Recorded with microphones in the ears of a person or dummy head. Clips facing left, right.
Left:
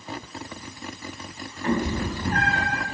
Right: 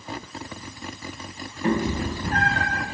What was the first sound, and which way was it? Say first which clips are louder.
A cat meowing: right 1 dB; 15° right (ahead or behind).